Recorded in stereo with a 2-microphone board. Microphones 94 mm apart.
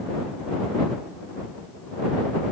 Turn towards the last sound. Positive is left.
No sound to turn to.